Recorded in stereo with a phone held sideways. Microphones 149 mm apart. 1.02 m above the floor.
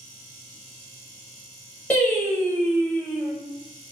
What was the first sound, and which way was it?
Singing, 10° left (ahead or behind).